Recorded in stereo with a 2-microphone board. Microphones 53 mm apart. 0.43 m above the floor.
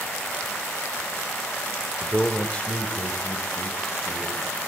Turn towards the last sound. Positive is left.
turn(degrees=60)  # may be behind; listen again after turning